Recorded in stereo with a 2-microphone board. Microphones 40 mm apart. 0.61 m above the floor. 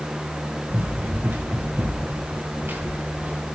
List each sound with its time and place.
0.7 s running footsteps: 80° right, 3 m; by 3.6 s 55° right (ahead or behind), 3.5 m